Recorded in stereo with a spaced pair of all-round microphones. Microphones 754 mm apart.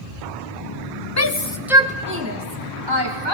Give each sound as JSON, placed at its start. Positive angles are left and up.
{"t": 1.2, "sound": "a shout", "side_deg": 20, "distance_m": 1.3}